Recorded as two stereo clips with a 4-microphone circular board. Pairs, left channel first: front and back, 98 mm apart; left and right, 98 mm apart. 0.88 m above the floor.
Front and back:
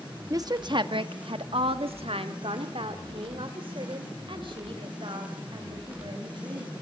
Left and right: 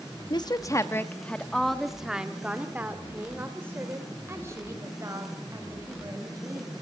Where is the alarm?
I don't hear an alarm.